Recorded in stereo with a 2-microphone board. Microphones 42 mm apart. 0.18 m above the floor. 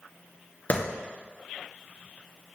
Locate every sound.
0.7 s a clap: 40° left (ahead or behind), 2.5 m